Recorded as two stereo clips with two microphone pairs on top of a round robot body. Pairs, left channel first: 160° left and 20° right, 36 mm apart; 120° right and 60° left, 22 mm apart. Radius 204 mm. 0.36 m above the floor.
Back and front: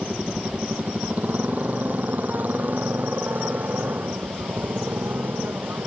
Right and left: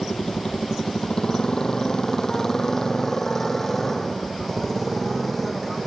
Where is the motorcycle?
70° right; by 5.9 s 35° right.